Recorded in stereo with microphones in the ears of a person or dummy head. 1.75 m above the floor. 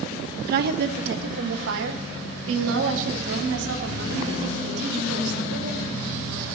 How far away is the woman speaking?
About 1.2 m.